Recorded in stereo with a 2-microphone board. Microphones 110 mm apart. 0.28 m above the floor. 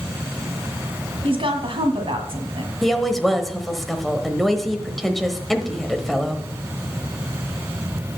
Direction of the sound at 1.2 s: 60° right (ahead or behind).